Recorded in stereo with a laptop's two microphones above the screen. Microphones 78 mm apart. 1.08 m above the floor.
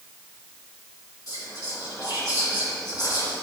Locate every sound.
1.3 s whispering: 55° left (ahead or behind), 1.8 m